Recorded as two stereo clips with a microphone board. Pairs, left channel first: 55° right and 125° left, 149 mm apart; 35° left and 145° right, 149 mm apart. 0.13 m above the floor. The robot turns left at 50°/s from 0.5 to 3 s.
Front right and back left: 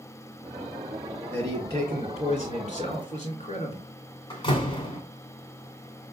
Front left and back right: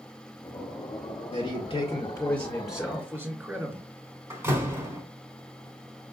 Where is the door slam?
85° right, 1.1 m.